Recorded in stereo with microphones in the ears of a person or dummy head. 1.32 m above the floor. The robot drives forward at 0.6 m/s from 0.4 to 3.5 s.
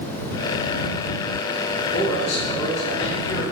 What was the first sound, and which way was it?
A man speaking, 45° left (ahead or behind).